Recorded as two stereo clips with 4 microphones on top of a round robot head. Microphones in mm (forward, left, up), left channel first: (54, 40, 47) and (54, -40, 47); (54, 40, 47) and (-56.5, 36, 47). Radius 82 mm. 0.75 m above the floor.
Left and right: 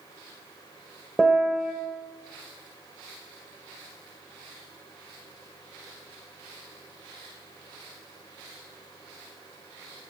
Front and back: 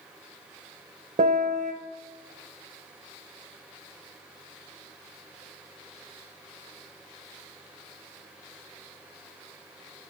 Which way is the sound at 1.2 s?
Straight behind.